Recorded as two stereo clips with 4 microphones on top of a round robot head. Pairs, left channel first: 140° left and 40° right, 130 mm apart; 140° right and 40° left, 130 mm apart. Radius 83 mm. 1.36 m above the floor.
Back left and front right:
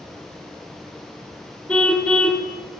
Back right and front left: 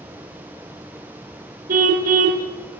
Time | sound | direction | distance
1.7 | a car horn | 60° left | 2.5 m